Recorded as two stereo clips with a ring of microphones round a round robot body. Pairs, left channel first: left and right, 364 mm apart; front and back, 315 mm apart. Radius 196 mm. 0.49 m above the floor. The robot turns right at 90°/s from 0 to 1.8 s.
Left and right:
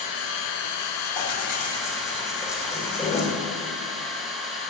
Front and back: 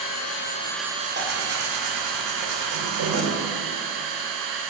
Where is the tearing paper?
115° left, 2.5 m; by 3.3 s 170° left, 2.5 m.